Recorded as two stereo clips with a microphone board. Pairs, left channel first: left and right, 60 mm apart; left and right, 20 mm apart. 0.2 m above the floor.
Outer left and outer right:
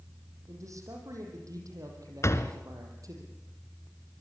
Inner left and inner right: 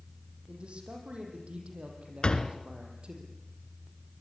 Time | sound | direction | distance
0.5 | a man speaking | 65° right (ahead or behind) | 8.5 m
2.2 | a door slam | 50° left (ahead or behind) | 1.6 m